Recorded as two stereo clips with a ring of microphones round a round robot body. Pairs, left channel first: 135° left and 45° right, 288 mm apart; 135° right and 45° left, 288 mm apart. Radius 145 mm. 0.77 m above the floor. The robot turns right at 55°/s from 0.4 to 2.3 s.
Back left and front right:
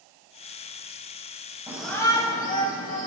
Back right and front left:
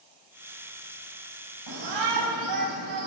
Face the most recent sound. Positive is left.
turn(degrees=70)